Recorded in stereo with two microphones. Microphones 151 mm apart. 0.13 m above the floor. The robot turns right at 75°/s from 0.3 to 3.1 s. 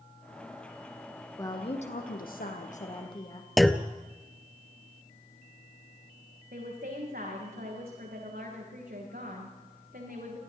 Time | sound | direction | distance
1.4 | a woman speaking | 20° left | 4 m
3.6 | a clunk | centre (ahead or behind) | 0.8 m
6.5 | a woman speaking | 80° right | 9 m